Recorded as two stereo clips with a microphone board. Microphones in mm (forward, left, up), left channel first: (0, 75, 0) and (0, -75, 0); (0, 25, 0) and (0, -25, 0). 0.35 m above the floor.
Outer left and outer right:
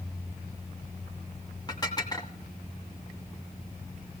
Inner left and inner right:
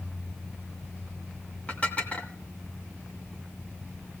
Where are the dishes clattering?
25° left (ahead or behind), 1.9 m.